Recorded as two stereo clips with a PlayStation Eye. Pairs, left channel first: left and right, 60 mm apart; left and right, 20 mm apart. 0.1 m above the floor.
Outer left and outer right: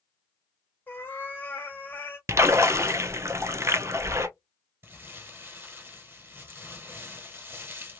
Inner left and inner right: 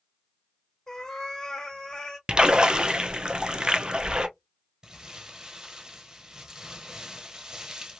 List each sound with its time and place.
0.9 s a cat meowing: 35° left (ahead or behind), 0.8 m
2.3 s a splash: 50° right (ahead or behind), 0.5 m
4.8 s crumpling: 35° right (ahead or behind), 1.5 m